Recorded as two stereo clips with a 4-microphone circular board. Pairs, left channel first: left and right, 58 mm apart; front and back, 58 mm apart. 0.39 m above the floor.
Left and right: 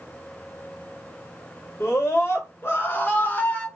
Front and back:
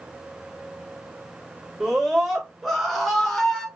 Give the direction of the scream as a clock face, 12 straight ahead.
9 o'clock.